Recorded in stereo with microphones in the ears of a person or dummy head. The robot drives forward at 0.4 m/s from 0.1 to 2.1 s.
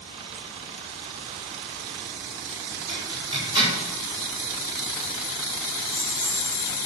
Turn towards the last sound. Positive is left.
turn(degrees=10)  # may be behind; listen again after turning